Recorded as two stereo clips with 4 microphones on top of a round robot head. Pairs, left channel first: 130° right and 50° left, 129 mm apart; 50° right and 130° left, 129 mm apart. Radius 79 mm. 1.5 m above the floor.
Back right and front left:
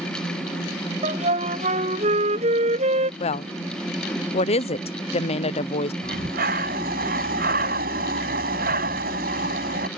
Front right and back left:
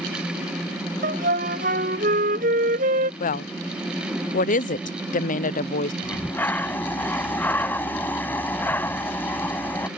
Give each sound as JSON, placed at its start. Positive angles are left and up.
{"t": 1.0, "sound": "a flute", "azimuth_deg": 95}
{"t": 3.2, "sound": "a woman speaking", "azimuth_deg": -80}
{"t": 6.0, "sound": "breathing", "azimuth_deg": 25}